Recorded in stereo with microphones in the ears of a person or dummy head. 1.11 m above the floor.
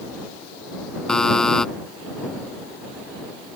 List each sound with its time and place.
1.1 s a buzzer: 5° left (ahead or behind)